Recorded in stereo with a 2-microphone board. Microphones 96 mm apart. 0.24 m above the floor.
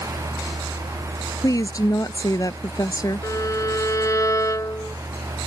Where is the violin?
35° left (ahead or behind).